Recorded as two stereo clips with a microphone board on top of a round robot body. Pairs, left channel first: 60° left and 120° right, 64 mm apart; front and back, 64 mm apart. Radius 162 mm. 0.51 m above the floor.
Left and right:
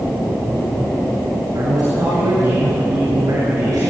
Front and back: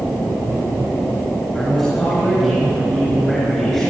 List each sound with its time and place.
1.5 s a man speaking: 80° right, 8 m